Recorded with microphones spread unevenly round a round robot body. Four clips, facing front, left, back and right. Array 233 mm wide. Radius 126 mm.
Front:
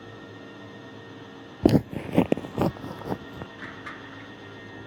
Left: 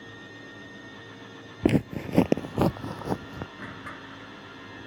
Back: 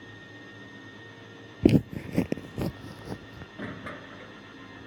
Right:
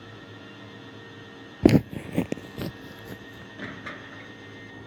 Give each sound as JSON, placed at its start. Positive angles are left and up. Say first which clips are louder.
{"t": 1.6, "sound": "footsteps", "louder": "right 5 dB, front 1 dB", "azimuth_deg": -90}
{"t": 3.6, "sound": "crushing", "louder": "right 2 dB, back 1 dB", "azimuth_deg": -160}